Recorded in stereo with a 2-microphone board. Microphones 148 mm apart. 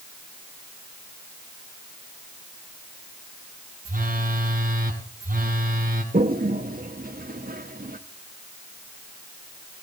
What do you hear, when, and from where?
3.9 s a phone buzzing: 70° right (ahead or behind), 2.5 m
6.1 s a toilet flushing: 80° right, 1.1 m